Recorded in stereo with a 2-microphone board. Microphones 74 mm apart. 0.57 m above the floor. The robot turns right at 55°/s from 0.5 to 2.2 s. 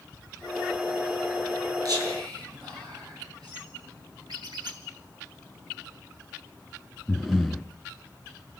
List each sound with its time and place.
1.9 s whispering: 60° right (ahead or behind), 9 m; by 3.6 s 75° right (ahead or behind), 9 m
4.3 s a squeak: 75° right (ahead or behind), 4 m
7.1 s breathing: centre (ahead or behind), 1.4 m